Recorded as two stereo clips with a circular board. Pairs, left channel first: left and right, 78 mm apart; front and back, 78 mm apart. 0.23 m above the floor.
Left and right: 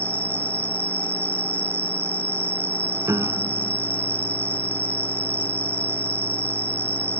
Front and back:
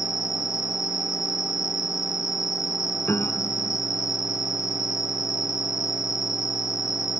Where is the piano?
50° right.